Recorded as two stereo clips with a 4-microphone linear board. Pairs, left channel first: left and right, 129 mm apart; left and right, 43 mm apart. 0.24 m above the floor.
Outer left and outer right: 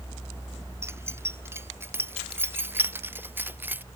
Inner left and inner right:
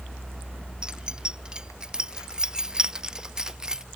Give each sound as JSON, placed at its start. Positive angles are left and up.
{"t": 0.8, "sound": "keys jangling", "side_deg": -20}